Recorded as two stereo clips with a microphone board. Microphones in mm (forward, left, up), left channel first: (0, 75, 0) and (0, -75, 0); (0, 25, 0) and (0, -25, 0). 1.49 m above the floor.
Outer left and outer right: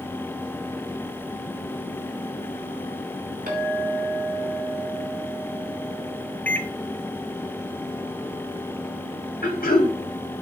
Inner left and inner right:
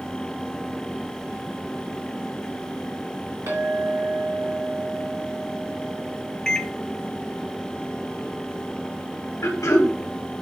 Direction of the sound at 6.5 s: 10° left (ahead or behind).